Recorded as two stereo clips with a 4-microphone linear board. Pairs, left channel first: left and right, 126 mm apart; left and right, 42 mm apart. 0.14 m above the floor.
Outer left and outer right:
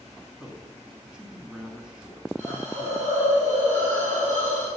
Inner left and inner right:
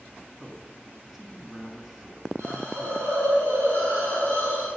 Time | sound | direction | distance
0.4 | a man speaking | 5° right (ahead or behind) | 1.6 m
2.4 | a hiss | 75° right (ahead or behind) | 4 m